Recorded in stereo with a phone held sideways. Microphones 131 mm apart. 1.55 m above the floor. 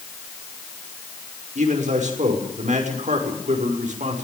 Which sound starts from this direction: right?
A man speaking, at 1.6 s.